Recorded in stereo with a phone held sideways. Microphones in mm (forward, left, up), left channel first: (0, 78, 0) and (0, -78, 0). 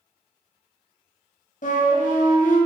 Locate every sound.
1.6 s a flute: 60° left (ahead or behind), 0.8 m